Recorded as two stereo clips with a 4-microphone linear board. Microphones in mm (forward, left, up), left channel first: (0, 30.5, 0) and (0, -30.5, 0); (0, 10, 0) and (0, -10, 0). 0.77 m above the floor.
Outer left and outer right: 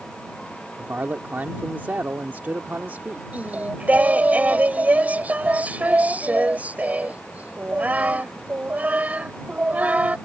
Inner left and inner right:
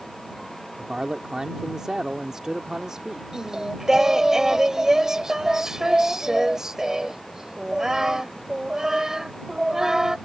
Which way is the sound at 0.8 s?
30° right (ahead or behind).